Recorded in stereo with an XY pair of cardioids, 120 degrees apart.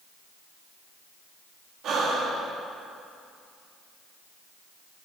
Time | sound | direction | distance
1.8 | breathing | 60° right | 2 m